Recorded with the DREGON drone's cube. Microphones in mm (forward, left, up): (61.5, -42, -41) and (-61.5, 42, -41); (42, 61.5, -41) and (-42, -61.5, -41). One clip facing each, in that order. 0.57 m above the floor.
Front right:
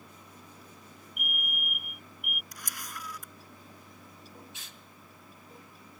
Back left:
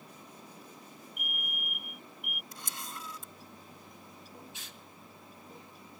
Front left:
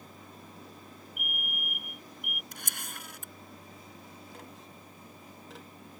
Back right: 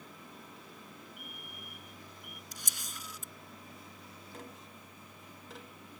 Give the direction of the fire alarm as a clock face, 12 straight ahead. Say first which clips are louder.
Front right 5 dB, front left 6 dB; 2 o'clock.